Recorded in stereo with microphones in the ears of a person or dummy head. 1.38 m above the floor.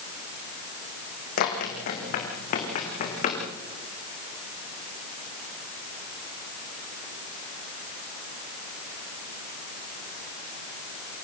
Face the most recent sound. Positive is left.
turn(degrees=50)  # may be behind; listen again after turning